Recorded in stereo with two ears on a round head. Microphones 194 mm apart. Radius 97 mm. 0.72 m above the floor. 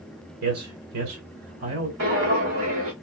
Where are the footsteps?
70° right (ahead or behind), 2.5 m.